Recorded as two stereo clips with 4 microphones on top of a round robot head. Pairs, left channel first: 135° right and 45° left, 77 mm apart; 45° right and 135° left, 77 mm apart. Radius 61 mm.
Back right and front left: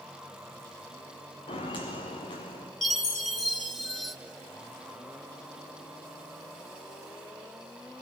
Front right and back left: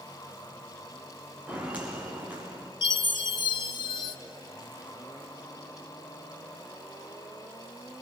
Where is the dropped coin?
No dropped coin in this recording.